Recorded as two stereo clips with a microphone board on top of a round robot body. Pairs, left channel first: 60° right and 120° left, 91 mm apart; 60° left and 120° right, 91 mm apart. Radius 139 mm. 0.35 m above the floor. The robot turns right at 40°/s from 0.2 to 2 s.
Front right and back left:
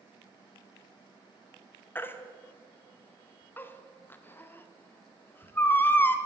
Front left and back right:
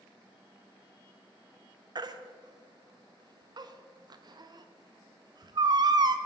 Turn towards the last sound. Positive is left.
turn(degrees=-120)